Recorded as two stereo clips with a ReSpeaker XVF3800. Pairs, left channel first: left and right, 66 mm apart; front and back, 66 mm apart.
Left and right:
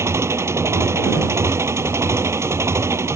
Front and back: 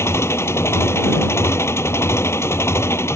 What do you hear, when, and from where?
0.0 s an engine running: 45° right